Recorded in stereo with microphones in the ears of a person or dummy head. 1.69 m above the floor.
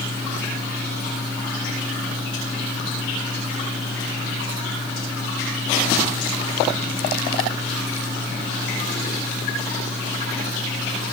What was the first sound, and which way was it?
Only background noise.